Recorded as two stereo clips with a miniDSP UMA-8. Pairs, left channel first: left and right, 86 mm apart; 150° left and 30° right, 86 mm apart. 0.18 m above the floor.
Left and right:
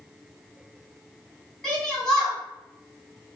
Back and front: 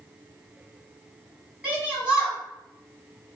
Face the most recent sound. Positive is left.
turn(degrees=20)